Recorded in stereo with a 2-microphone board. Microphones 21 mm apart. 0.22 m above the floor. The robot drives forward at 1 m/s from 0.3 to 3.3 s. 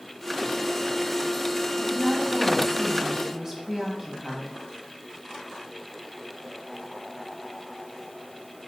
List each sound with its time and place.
1.8 s a woman speaking: 20° right (ahead or behind), 1.8 m